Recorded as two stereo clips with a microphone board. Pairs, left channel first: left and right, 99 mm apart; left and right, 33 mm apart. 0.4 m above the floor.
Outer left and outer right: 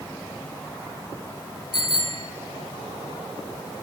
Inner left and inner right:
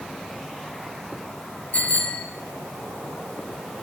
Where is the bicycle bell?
45° left (ahead or behind), 5.5 m.